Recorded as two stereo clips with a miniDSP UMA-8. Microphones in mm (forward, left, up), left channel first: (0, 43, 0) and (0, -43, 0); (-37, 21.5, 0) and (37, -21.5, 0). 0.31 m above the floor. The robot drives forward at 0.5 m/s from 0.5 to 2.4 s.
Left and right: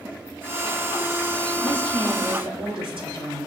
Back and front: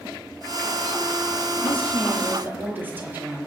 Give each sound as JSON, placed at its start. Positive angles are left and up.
{"t": 1.6, "sound": "a woman speaking", "azimuth_deg": -95, "distance_m": 5.5}